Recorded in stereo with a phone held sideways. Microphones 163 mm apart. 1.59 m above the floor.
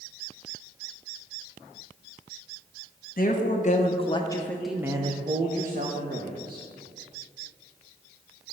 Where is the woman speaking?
55° left (ahead or behind), 1.3 m; by 6.7 s 65° right (ahead or behind), 1.6 m.